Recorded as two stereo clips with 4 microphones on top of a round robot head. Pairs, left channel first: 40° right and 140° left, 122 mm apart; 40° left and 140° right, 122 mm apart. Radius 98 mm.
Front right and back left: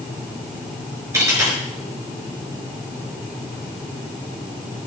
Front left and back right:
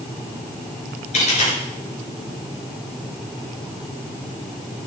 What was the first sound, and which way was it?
A dropped coin, 75° left.